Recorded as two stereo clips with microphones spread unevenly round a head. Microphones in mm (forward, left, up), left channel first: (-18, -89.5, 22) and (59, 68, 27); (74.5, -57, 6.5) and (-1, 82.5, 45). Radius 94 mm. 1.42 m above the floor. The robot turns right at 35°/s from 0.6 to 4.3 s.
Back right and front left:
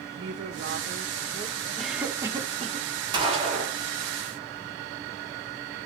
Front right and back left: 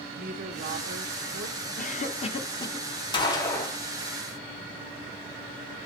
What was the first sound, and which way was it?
A woman speaking, 95° left.